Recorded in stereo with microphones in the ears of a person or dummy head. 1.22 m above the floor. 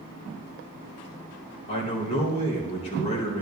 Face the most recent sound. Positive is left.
turn(degrees=30)  # may be behind; listen again after turning